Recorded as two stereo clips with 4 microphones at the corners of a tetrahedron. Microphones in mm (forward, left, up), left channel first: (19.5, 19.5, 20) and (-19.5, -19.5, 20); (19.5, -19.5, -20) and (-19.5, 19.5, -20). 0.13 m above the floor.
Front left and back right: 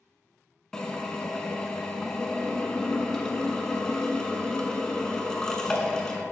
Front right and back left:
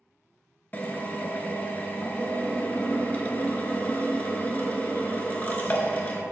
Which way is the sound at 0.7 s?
25° right.